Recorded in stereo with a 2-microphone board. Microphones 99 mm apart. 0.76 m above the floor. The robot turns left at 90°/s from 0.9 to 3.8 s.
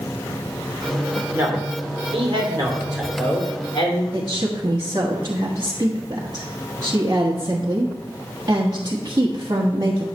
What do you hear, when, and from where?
1.3 s a man speaking: 25° right, 2.5 m; by 4.0 s 115° left, 2.5 m
4.1 s a woman speaking: 40° right (ahead or behind), 1.2 m